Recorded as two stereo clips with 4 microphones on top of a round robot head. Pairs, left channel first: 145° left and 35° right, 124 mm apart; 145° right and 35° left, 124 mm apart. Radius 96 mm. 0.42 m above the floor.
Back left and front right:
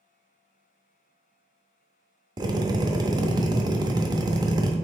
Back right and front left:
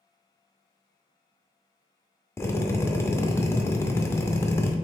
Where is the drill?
80° right, 0.6 m.